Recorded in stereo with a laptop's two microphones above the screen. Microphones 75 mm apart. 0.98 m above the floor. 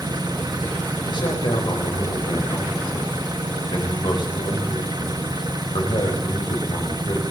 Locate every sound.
0.0 s an engine running: 60° right (ahead or behind), 1.3 m
1.1 s a man speaking: 80° left, 5.5 m